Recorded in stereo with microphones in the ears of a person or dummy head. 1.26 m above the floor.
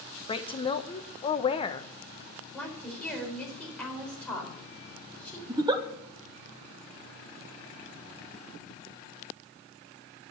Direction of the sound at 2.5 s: 5° left (ahead or behind).